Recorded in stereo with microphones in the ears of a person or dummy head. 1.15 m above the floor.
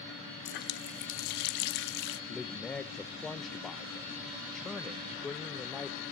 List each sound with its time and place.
0.5 s a running tap: 60° left (ahead or behind), 1.0 m
2.3 s a man speaking: 5° left (ahead or behind), 0.5 m